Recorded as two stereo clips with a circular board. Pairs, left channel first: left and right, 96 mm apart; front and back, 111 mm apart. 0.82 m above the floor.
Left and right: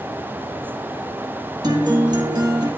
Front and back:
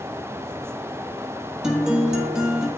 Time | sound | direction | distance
1.6 | a guitar | 100° right | 1.4 m